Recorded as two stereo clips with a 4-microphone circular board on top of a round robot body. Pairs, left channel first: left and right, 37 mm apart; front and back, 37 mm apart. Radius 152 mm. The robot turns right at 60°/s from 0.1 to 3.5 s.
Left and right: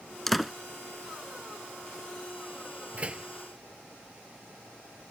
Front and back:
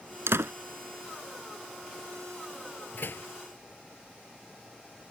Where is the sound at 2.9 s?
35° right; by 3.3 s 15° right.